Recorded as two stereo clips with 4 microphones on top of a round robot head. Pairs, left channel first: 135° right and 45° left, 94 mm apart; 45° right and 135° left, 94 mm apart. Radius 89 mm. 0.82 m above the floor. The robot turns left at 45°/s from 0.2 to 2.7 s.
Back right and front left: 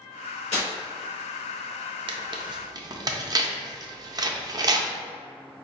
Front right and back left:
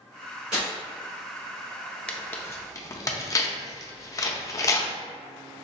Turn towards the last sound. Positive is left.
turn(degrees=5)